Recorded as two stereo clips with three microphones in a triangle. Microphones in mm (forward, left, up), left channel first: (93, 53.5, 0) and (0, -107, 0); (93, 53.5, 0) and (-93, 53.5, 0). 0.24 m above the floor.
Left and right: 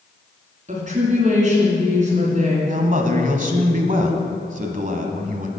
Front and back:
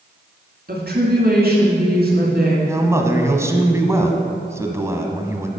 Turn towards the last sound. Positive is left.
turn(degrees=-110)